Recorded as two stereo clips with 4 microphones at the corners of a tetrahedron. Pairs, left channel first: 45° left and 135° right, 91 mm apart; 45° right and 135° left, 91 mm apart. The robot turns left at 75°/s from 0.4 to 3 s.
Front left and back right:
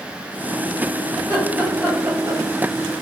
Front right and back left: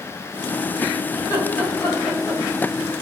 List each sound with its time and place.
1.1 s laughter: straight ahead, 1.7 m; by 2.4 s 90° right, 1.7 m